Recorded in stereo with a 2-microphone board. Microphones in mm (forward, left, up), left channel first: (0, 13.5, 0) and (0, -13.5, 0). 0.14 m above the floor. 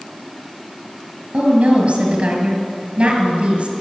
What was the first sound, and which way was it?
A woman speaking, 55° right (ahead or behind).